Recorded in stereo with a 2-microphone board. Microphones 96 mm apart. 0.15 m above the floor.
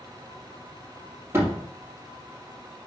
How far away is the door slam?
About 4 m.